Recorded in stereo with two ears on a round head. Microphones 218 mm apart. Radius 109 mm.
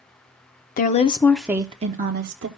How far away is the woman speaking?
About 0.7 m.